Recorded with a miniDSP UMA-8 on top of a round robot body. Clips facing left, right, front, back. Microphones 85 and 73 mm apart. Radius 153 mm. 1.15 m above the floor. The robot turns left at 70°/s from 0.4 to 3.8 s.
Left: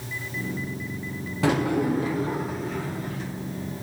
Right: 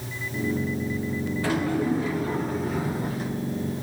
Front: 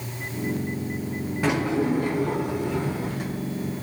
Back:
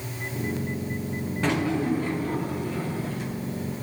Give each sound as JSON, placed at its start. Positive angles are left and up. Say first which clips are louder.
{"t": 1.4, "sound": "a drawer", "louder": "left 3 dB, front 2 dB", "azimuth_deg": 80, "distance_m": 1.5}